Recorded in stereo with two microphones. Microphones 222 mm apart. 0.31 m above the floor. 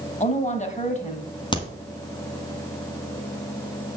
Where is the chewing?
No chewing in this recording.